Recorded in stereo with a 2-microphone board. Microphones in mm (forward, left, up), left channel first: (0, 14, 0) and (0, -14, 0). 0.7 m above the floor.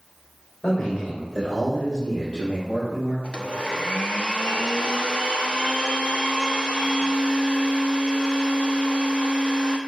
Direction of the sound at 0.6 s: 55° left (ahead or behind).